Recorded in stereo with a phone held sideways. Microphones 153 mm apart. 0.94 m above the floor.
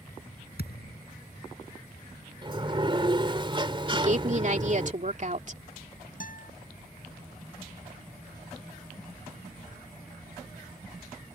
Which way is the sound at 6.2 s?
60° left (ahead or behind).